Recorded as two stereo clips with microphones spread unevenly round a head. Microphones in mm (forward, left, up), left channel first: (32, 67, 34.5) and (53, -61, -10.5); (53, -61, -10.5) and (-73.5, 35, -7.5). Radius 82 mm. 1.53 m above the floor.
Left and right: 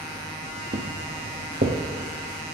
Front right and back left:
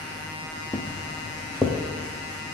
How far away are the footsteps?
About 2.0 m.